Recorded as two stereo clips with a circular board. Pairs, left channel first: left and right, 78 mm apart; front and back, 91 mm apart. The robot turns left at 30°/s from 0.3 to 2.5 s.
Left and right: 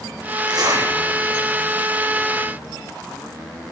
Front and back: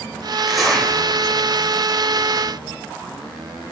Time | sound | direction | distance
0.5 | a zipper | 85° right | 2 m